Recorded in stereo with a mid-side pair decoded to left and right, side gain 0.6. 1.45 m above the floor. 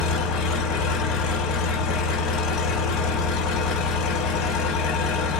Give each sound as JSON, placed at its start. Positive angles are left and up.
{"t": 0.0, "sound": "an engine running", "azimuth_deg": 70, "distance_m": 1.1}